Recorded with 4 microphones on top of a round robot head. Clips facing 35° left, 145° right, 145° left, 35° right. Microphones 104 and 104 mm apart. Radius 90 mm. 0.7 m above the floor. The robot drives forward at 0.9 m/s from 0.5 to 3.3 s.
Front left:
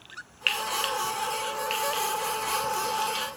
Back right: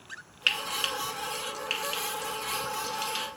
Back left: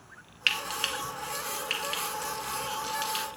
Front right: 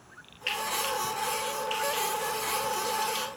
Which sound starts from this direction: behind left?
Frying, at 0.5 s.